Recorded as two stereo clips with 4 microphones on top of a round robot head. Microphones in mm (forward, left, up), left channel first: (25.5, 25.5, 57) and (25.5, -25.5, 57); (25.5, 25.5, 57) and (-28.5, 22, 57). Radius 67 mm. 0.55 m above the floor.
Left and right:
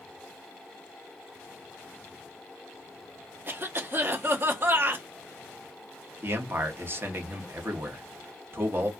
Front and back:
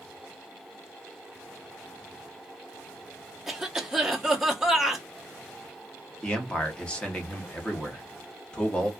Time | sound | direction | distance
3.5 | a cough | 95° right | 0.9 m
6.2 | a man speaking | 65° right | 1.0 m